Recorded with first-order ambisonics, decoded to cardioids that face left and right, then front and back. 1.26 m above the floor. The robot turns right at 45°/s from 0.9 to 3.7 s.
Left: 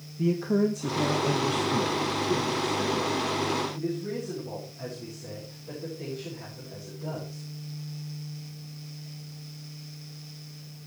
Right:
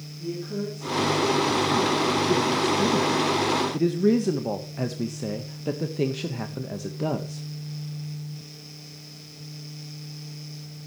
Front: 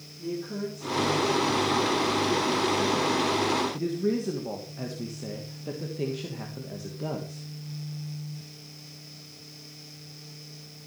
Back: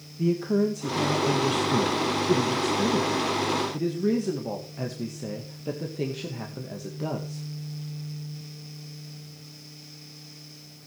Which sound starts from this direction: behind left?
A man speaking, at 0.2 s.